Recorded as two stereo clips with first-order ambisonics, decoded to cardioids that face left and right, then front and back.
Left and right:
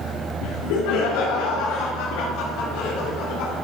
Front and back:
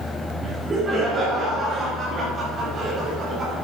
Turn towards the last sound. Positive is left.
turn(degrees=120)